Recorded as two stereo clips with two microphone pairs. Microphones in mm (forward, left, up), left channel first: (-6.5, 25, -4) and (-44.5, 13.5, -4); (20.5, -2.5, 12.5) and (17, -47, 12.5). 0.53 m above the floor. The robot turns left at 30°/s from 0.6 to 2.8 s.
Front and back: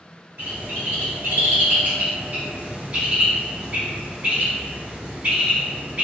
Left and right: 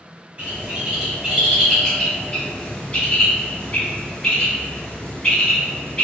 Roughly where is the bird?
Behind right.